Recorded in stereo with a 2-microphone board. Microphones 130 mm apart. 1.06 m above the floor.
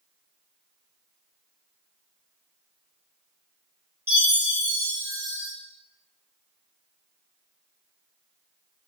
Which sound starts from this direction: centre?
A chime, at 4.1 s.